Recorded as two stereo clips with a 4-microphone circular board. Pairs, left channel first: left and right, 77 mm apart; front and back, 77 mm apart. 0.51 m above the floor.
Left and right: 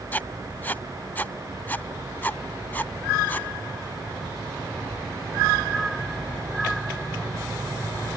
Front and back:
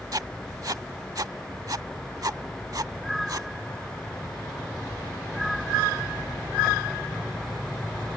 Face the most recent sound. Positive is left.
turn(degrees=155)